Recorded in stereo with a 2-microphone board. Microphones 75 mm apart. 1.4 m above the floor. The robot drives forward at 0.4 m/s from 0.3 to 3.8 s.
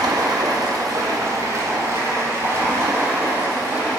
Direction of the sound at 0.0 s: 60° right (ahead or behind).